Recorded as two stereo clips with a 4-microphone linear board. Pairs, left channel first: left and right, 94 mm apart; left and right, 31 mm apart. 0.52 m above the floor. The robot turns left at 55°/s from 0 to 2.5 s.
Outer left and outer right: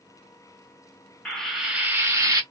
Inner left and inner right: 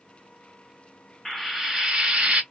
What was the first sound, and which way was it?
Frying, 10° left.